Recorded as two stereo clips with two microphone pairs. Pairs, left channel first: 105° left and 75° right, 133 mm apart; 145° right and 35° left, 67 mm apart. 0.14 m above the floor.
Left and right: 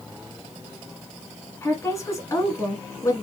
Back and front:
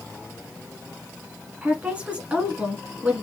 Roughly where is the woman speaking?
Left.